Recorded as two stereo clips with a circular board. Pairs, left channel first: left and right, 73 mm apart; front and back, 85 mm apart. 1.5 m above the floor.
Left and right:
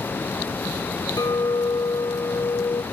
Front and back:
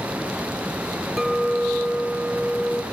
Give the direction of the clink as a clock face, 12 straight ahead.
9 o'clock.